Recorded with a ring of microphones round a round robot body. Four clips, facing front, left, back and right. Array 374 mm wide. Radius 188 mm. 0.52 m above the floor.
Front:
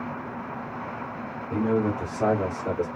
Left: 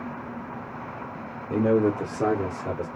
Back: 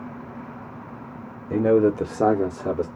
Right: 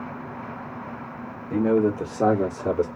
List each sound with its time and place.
1.5 s a man speaking: 160° left, 1.3 m; by 2.9 s 115° right, 1.2 m